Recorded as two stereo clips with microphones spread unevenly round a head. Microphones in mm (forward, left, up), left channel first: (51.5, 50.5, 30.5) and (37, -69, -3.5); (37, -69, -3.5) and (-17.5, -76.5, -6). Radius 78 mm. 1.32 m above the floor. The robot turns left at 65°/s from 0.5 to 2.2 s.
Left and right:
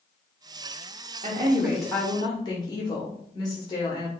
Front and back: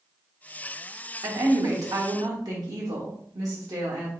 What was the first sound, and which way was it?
A woman speaking, 145° right.